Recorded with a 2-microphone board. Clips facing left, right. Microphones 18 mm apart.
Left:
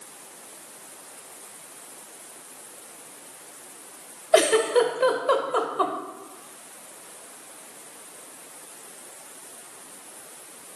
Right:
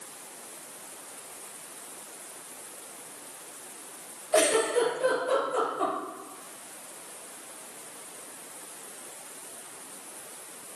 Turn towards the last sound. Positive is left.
turn(degrees=65)  # may be behind; listen again after turning